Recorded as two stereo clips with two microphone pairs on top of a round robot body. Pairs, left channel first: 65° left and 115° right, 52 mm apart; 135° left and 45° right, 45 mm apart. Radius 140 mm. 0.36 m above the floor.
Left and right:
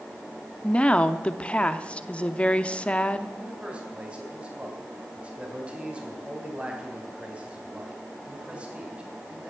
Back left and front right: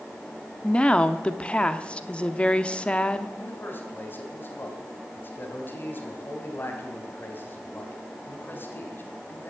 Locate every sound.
0.6 s a woman speaking: 100° left, 1.1 m
3.4 s a man speaking: 175° left, 3.5 m